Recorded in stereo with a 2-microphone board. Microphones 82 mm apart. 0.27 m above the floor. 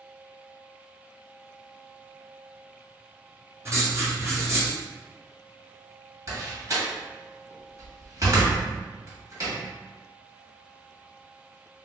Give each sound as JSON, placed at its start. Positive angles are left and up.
{"t": 3.6, "sound": "writing", "side_deg": -35, "distance_m": 1.1}
{"t": 6.3, "sound": "a door slam", "side_deg": -40, "distance_m": 1.2}